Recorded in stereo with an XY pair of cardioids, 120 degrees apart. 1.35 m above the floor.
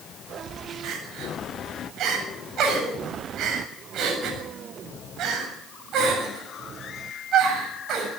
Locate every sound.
0.8 s crying: 65° right, 7.5 m